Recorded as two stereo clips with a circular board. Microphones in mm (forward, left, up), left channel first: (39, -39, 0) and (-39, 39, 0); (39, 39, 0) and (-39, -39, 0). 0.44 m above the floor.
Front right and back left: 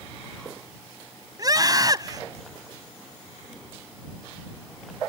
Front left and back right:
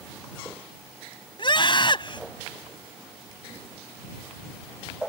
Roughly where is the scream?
Left.